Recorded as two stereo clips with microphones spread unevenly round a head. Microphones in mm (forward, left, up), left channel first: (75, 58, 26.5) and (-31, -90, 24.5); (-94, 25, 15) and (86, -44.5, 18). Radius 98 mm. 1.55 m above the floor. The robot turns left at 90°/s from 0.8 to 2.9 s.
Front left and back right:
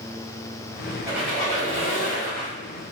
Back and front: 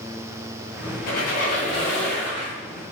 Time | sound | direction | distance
1.1 | a squeak | 165° left | 1.0 m